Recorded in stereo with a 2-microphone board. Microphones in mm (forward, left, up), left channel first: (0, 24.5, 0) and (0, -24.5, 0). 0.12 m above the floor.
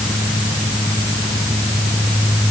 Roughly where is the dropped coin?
I don't hear a dropped coin.